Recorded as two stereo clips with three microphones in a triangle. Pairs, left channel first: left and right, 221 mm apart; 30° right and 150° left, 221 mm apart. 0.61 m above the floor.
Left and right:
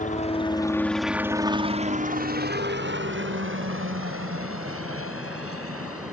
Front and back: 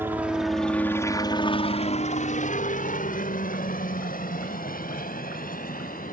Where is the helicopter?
75° left; by 6.1 s 80° right.